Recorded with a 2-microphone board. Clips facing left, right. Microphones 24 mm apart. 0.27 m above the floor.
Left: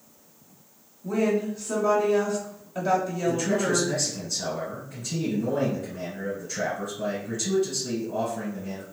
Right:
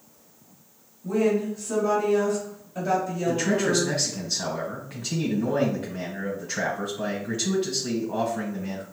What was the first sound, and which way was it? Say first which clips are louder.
A woman speaking: right 1 dB; 25° left (ahead or behind).